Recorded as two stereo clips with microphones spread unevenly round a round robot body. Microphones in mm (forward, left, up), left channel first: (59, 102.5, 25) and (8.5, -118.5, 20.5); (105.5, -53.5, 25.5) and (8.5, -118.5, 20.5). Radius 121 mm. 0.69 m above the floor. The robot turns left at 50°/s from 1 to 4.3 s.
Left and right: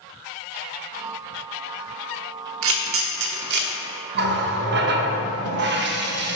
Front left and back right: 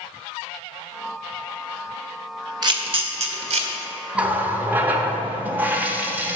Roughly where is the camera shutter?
Right.